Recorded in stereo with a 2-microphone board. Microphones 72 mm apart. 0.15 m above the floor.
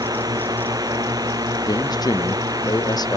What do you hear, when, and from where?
0.0 s a drone: 65° right (ahead or behind); by 3.2 s 60° right (ahead or behind)
1.7 s a man speaking: 70° left (ahead or behind)